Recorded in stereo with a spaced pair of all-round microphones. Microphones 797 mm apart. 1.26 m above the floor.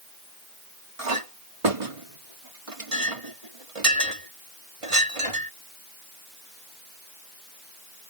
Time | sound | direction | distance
1.0 | a clink | 40° right (ahead or behind) | ?